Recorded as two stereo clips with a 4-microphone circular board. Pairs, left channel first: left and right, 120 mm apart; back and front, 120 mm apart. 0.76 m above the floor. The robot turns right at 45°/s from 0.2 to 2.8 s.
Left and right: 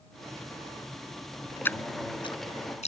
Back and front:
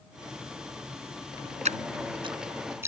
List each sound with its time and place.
1.6 s dripping: 15° left; by 2.9 s 70° left